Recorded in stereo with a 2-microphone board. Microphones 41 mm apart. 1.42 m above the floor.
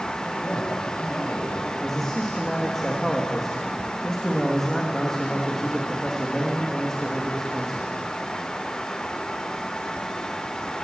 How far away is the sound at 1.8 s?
About 2 m.